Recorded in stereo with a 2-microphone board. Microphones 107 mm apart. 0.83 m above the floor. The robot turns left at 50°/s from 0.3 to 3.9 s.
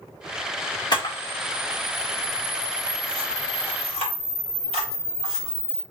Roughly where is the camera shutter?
Left.